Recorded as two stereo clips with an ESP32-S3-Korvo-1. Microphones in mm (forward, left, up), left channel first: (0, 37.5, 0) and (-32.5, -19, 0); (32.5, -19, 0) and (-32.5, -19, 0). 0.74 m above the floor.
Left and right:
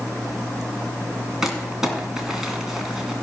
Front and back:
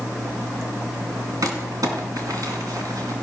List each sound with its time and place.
1.4 s crumpling: 155° left, 2 m